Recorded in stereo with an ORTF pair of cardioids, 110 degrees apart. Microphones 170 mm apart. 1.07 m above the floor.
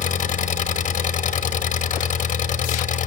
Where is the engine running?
50° left, 1.3 m.